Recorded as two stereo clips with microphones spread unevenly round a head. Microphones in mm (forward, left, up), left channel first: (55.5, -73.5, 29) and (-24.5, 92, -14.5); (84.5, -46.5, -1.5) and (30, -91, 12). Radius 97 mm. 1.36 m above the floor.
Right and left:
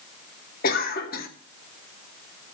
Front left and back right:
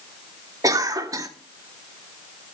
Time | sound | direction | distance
0.6 | a cough | 110° right | 2.5 m